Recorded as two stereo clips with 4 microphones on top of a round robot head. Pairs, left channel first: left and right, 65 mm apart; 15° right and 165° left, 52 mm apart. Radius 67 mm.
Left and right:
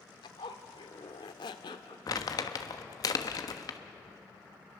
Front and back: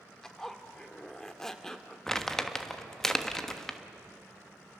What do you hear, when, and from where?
0.2 s a zipper: 70° left, 1.1 m
2.1 s crumpling: 70° left, 1.4 m